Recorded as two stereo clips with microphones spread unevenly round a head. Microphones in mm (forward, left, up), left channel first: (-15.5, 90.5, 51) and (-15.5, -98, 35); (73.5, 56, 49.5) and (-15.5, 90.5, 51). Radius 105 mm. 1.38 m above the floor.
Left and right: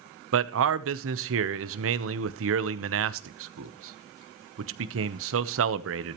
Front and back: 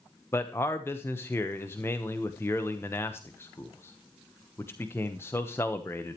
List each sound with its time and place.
0.3 s a man speaking: 95° right, 0.9 m